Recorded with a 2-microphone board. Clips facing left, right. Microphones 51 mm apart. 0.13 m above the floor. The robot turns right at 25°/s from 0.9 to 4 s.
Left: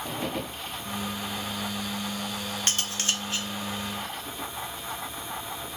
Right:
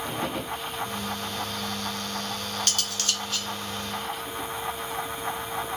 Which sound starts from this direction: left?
Cutlery clinking, at 2.7 s.